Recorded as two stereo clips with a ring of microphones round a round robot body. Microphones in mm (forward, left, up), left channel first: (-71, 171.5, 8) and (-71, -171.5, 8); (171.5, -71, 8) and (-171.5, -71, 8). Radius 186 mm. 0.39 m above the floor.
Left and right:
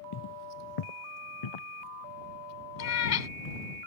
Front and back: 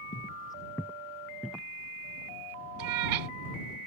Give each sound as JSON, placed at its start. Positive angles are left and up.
{"t": 0.1, "sound": "footsteps", "azimuth_deg": 65}
{"t": 2.8, "sound": "a cat meowing", "azimuth_deg": 140}